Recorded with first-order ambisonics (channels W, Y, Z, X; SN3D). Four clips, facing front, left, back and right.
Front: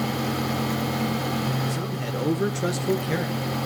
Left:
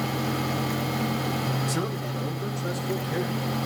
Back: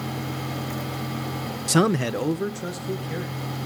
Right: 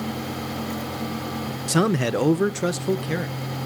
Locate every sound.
1.7 s a man speaking: 155° right, 0.7 m; by 3.4 s 55° right, 1.9 m